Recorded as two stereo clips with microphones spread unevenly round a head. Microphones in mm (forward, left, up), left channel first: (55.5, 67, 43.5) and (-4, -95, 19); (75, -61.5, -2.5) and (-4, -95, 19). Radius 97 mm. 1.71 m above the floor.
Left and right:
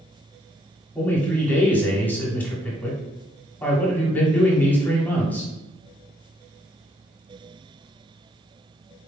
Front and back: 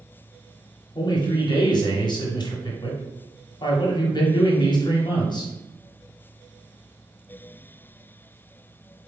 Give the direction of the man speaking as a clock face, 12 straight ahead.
12 o'clock.